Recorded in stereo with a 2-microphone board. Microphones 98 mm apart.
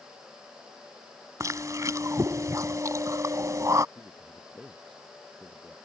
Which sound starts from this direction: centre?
A man speaking, at 4.0 s.